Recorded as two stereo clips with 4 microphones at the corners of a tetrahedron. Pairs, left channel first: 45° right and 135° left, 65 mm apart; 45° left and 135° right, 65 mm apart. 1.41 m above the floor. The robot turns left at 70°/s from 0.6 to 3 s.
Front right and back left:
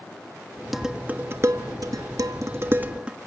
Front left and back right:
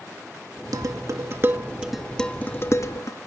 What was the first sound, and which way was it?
Dishes clattering, 135° right.